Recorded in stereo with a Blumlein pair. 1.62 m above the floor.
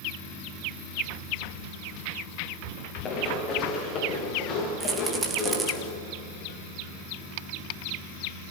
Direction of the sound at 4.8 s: 20° right.